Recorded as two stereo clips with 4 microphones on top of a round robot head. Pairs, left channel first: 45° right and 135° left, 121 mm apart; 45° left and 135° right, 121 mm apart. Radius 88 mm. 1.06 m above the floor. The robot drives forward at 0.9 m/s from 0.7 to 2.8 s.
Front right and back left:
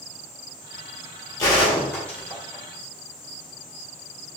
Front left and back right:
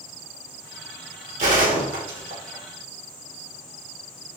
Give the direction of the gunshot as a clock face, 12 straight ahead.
4 o'clock.